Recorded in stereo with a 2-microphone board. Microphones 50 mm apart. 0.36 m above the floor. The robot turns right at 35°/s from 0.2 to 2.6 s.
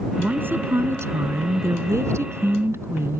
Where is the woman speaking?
145° right; by 3.2 s 60° right.